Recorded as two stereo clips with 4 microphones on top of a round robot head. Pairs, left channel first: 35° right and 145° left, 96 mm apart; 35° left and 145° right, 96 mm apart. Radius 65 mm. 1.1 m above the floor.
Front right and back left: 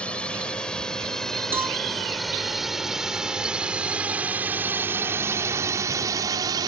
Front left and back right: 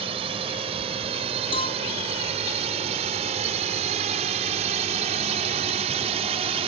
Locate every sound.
0.0 s a drone: 115° right; by 6.7 s 165° right
1.5 s a cowbell: 75° left